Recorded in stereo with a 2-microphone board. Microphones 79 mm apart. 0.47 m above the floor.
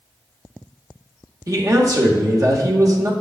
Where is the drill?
No drill in this recording.